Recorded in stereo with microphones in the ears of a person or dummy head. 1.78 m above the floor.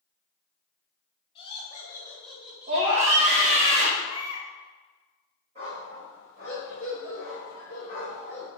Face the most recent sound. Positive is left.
turn(degrees=-40)  # may be behind; listen again after turning